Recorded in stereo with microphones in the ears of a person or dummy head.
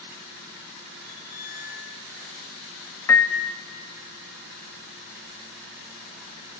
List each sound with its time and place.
1.0 s a squeak: 15° left (ahead or behind), 1.1 m
3.1 s a piano: 15° left (ahead or behind), 0.7 m